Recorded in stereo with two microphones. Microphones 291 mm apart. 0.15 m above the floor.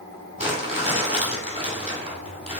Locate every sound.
0.4 s crumpling: 25° right (ahead or behind), 2 m